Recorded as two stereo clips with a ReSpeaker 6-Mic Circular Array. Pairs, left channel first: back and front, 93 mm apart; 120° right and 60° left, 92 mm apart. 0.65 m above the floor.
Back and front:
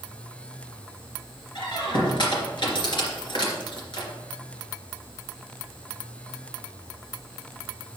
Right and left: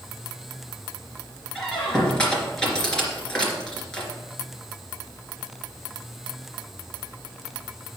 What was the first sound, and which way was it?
A squeak, 160° left.